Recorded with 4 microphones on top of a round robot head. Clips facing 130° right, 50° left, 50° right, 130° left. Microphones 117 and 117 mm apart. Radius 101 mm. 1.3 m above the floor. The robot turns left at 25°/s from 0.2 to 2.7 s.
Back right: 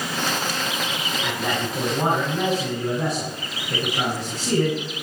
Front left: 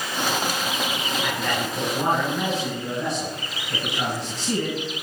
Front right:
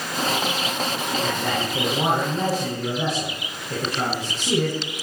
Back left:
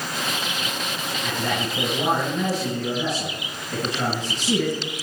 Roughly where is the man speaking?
Ahead right.